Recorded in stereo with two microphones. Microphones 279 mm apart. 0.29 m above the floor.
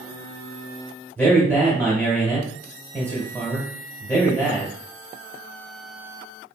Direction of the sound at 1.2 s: 5° left (ahead or behind).